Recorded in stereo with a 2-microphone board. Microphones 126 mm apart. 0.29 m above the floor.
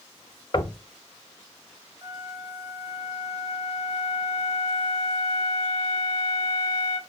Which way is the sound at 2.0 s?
30° right (ahead or behind).